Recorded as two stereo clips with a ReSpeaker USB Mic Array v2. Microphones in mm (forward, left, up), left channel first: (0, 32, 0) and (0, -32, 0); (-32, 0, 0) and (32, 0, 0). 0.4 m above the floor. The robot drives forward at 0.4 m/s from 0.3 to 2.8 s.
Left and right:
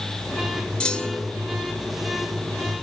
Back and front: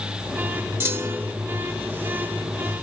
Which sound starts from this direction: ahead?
A clunk, at 0.8 s.